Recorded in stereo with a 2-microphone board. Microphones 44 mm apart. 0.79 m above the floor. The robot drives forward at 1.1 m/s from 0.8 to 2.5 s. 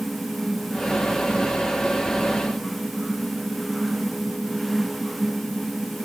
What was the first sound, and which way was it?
Only background noise.